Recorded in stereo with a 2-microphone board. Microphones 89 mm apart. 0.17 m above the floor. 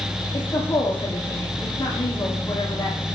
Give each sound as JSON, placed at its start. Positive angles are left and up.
{"t": 0.3, "sound": "a woman speaking", "side_deg": 45, "distance_m": 5.5}